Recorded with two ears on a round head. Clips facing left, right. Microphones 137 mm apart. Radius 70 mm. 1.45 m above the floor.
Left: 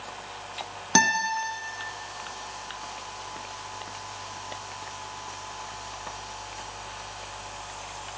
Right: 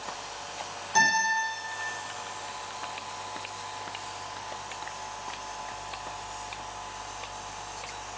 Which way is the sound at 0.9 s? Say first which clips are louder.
Left 2 dB; 70° left (ahead or behind).